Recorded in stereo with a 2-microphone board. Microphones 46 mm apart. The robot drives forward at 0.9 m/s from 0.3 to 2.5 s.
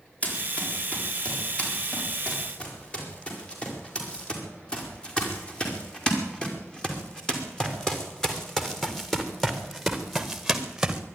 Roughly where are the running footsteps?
Left.